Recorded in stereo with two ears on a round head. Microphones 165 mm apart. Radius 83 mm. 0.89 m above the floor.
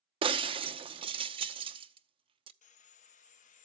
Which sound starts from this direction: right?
Breaking glass, at 0.2 s.